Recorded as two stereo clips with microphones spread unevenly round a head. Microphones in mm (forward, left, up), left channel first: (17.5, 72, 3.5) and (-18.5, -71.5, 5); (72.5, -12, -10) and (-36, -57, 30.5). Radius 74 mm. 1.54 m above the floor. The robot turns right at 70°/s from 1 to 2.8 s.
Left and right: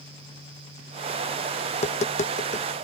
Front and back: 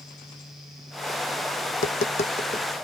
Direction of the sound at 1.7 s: 40° left.